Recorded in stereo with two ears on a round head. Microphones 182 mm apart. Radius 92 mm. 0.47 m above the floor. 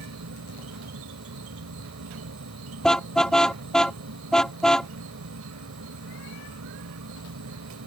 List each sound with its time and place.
0.0 s an insect: 80° right
2.8 s a car horn: 5° left (ahead or behind)